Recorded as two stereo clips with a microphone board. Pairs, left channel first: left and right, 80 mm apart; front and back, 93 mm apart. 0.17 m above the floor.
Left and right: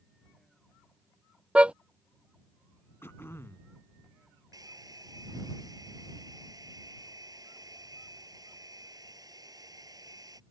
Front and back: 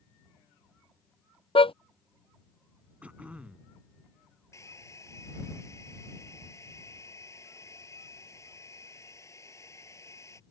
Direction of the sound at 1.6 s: 15° right.